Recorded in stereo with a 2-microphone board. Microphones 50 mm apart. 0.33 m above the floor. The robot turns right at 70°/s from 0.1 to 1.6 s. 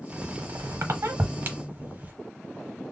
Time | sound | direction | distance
0.1 | a squeak | 30° right (ahead or behind) | 0.8 m